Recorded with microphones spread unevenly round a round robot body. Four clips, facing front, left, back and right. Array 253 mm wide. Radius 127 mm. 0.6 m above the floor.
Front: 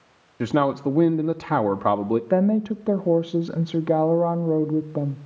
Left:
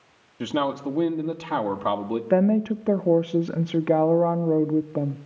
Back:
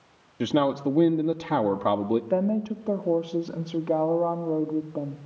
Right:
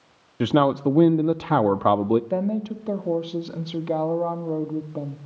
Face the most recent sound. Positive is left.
turn(degrees=60)